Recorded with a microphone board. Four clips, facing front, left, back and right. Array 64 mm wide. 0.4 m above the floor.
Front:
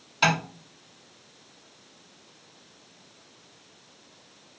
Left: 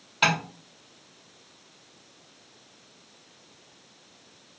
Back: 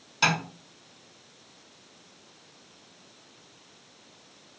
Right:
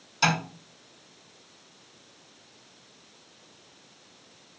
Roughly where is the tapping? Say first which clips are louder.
Left 1 dB, front 2 dB; left.